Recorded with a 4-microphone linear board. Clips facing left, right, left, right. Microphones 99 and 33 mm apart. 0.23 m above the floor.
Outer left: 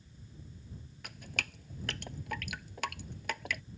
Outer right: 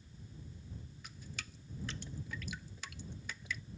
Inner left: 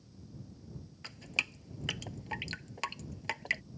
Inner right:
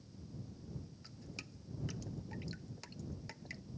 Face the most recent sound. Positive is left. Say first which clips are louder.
# outer left 11 dB, inner left 16 dB
turn(degrees=75)  # may be behind; listen again after turning